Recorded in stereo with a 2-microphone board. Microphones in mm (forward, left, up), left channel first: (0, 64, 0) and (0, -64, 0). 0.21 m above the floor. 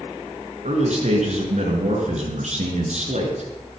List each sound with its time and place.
0.6 s a man speaking: 65° right (ahead or behind), 3.5 m